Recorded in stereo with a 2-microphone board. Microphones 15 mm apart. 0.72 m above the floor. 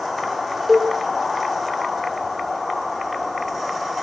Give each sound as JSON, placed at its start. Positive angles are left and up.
{"t": 0.7, "sound": "a cowbell", "side_deg": -10, "distance_m": 3.5}